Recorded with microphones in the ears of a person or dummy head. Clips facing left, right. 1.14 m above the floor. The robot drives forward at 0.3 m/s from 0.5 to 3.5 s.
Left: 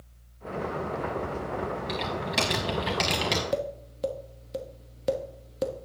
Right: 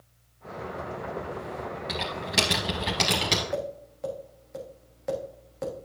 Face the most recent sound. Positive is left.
turn(degrees=40)  # may be behind; listen again after turning